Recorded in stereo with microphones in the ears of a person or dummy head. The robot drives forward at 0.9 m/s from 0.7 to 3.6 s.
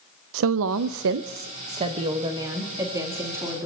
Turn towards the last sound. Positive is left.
turn(degrees=-15)  # may be behind; listen again after turning